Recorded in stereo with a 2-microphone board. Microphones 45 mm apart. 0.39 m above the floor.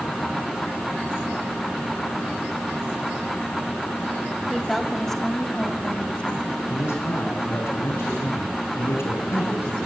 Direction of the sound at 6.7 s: 65° left (ahead or behind).